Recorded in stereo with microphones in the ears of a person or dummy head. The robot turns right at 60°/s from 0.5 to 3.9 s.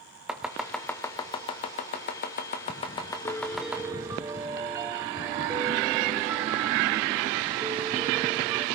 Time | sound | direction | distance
0.3 | chopping | 5° right (ahead or behind) | 1.0 m
3.2 | a piano | 160° left | 0.7 m